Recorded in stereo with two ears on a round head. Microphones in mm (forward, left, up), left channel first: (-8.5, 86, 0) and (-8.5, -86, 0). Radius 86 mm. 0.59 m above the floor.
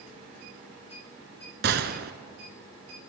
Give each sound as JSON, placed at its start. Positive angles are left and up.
{"t": 1.6, "sound": "a gunshot", "side_deg": -55, "distance_m": 1.4}